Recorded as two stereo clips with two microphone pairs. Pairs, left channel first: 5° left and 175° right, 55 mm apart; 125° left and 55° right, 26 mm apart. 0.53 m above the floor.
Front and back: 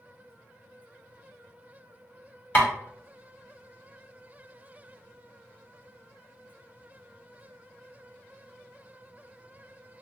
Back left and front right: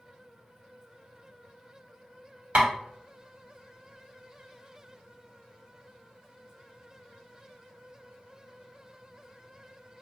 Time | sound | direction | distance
2.5 | tapping | 45° right | 1.1 m